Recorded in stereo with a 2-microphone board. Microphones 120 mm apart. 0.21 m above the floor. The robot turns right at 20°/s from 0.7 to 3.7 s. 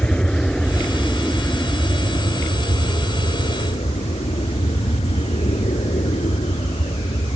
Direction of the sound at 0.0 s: 10° left.